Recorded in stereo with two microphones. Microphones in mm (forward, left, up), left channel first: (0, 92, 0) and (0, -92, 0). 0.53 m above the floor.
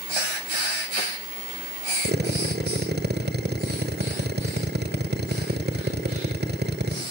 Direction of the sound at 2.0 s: 60° right (ahead or behind).